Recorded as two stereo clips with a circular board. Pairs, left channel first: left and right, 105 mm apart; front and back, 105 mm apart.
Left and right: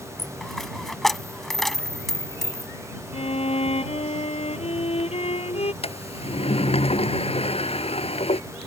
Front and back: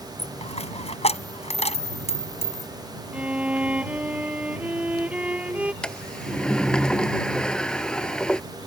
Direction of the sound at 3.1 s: 100° left.